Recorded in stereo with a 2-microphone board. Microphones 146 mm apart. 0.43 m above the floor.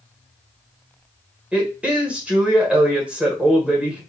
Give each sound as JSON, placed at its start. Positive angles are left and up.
{"t": 1.5, "sound": "a woman speaking", "side_deg": -10, "distance_m": 1.5}